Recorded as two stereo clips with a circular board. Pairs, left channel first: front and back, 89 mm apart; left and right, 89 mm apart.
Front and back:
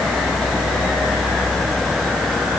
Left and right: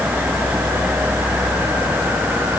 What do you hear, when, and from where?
Only background noise.